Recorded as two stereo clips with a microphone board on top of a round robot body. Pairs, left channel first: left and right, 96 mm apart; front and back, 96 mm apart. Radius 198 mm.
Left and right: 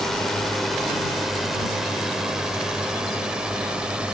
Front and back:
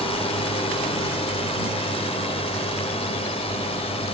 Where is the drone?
5° left; by 4.2 s 10° right.